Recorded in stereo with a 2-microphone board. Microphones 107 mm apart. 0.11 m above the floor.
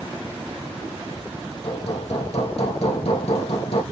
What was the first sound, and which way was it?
Hammering, 65° left (ahead or behind).